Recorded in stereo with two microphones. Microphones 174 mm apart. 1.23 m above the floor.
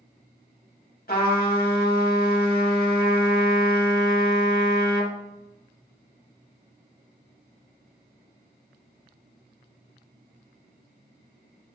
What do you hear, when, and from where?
1.1 s a trumpet: 55° left (ahead or behind), 1.8 m